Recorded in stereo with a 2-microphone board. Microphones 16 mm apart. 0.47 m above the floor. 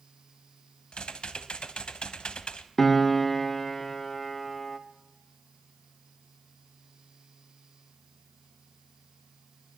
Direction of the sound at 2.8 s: 25° left (ahead or behind).